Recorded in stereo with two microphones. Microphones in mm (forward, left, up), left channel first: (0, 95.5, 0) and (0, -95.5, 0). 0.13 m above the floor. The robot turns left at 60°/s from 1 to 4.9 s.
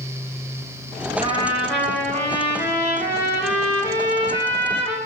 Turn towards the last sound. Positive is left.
turn(degrees=-5)